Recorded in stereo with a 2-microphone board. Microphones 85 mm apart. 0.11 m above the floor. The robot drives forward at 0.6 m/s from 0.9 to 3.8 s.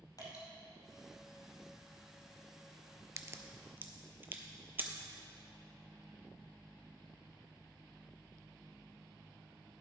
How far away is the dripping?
About 2.5 m.